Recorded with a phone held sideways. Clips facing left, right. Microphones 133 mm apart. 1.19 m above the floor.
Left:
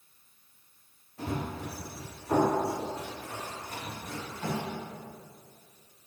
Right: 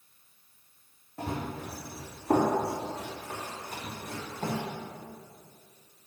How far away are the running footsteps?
About 3 m.